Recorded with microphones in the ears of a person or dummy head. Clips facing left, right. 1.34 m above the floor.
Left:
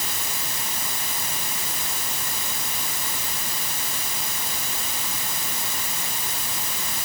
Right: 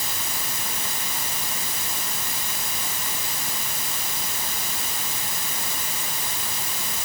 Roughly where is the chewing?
I don't hear chewing.